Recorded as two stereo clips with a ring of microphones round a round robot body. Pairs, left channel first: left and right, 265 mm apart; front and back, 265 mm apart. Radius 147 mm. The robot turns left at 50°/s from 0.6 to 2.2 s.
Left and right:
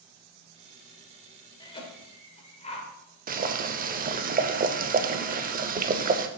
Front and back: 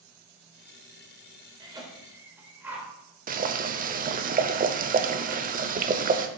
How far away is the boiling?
About 0.6 m.